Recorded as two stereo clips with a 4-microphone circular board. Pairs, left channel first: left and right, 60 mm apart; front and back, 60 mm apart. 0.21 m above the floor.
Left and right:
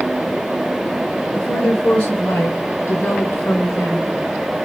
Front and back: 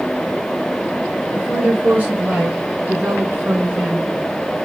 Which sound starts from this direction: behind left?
A woman speaking, at 1.3 s.